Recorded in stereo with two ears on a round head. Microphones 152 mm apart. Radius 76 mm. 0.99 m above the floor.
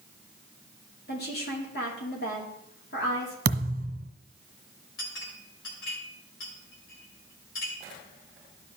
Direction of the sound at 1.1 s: 65° left (ahead or behind).